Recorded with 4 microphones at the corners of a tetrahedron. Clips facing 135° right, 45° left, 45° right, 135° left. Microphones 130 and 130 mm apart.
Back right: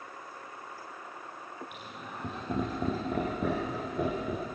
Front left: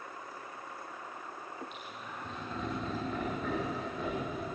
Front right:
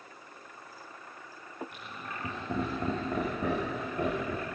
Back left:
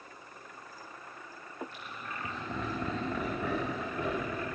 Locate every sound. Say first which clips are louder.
1.7 s laughter: back right 1 dB, front right 1 dB; 120° right, 5.5 m